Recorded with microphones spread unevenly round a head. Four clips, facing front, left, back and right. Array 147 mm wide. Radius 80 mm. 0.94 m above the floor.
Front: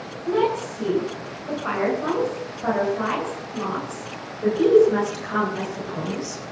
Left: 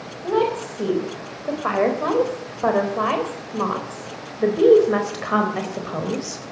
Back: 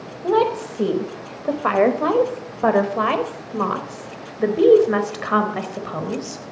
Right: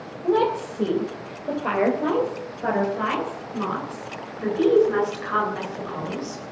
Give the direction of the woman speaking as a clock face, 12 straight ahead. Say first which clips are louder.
Even, back 3 dB; 6 o'clock.